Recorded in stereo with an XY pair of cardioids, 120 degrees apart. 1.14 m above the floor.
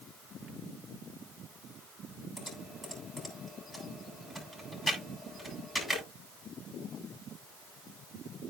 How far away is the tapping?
I don't hear tapping.